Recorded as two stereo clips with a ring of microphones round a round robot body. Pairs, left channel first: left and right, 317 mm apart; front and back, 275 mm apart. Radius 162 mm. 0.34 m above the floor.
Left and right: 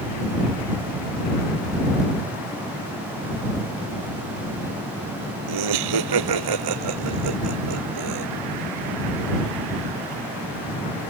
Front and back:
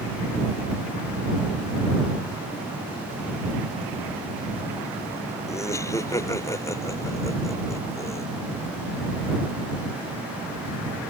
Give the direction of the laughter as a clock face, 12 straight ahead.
3 o'clock.